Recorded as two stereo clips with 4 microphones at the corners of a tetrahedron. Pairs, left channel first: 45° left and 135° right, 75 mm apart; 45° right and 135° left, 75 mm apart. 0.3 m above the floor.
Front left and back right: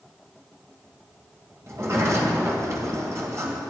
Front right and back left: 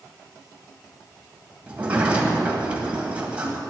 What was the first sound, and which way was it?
A sliding door, 160° right.